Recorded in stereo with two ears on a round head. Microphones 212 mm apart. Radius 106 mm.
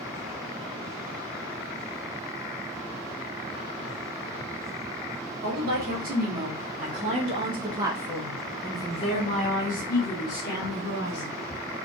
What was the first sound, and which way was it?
A woman speaking, 40° right (ahead or behind).